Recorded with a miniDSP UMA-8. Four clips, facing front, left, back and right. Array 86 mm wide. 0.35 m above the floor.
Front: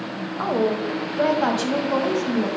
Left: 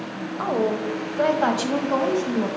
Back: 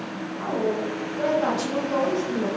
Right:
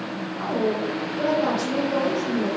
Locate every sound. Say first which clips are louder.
0.4 s a woman speaking: left 1 dB, front 4 dB; 35° left, 1.2 m; by 2.5 s 65° left, 2 m